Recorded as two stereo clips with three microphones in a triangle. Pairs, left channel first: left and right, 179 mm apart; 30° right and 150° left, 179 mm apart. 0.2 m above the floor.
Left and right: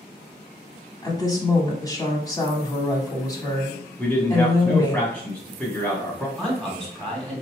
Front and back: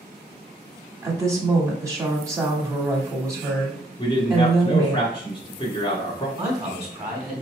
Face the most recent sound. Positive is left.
turn(degrees=175)